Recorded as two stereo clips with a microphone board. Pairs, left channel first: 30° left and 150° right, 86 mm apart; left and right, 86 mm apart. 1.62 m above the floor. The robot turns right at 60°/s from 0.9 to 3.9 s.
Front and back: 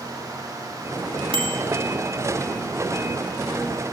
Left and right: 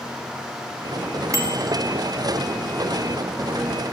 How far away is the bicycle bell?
About 4 m.